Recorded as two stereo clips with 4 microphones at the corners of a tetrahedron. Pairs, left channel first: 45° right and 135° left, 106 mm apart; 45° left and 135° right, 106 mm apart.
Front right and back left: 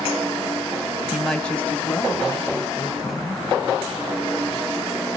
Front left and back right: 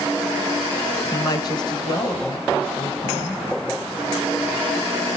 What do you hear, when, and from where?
1.1 s a woman speaking: 45° left, 1.0 m; by 3.4 s 10° left, 2.5 m